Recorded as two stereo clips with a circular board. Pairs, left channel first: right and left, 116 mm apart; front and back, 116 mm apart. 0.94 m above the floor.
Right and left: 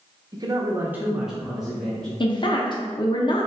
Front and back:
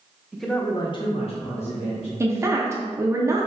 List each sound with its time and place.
0.3 s a man speaking: 100° left, 0.5 m; by 2.1 s 5° right, 1.4 m
2.2 s a woman speaking: 120° right, 0.5 m